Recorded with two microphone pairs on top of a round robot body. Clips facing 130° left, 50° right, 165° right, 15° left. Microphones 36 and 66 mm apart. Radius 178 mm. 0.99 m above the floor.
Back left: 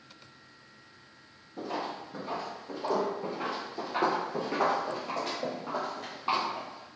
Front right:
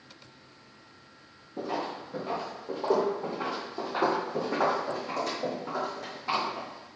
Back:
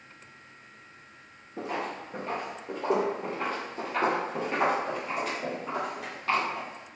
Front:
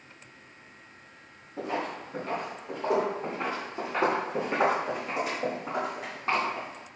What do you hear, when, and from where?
1.6 s footsteps: 105° right, 1.3 m; by 6.9 s 90° left, 2.5 m